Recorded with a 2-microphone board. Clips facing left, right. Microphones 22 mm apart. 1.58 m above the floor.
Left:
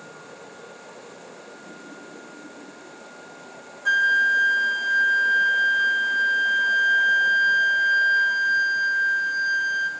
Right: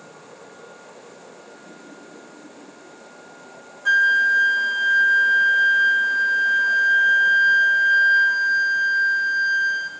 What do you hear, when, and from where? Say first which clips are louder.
3.9 s a flute: right 2 dB; 10° right (ahead or behind), 0.6 m